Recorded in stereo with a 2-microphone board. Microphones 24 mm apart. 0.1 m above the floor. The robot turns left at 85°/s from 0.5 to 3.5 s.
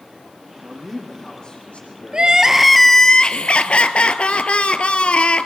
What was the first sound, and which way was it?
A man speaking, 145° right.